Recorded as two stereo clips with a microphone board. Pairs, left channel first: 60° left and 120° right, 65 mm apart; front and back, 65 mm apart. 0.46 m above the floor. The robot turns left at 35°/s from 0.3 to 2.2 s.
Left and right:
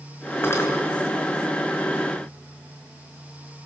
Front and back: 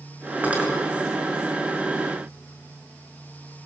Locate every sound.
0.4 s cutlery clinking: 115° left, 4 m; by 0.7 s 105° left, 4 m